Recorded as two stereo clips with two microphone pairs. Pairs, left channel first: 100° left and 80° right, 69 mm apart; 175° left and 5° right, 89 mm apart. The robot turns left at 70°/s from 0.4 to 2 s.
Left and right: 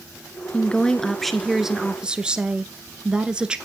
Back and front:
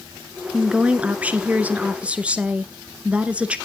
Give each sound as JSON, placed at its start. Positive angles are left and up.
{"t": 0.5, "sound": "a woman speaking", "azimuth_deg": 65, "distance_m": 1.1}